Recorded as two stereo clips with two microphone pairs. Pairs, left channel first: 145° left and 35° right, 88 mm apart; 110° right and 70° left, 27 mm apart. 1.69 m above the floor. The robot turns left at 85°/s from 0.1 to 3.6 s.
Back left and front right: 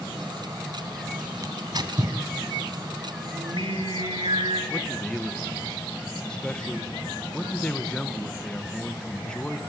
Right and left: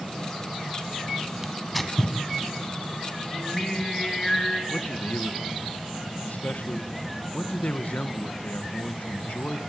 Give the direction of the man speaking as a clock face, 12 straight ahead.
4 o'clock.